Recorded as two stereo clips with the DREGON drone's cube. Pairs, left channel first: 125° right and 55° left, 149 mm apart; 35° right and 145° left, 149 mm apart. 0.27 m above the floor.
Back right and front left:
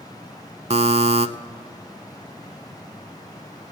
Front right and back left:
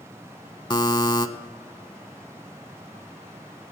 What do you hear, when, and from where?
0.7 s a buzzer: 20° left, 0.5 m